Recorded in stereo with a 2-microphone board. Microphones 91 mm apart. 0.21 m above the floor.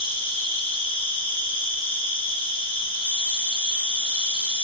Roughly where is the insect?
Left.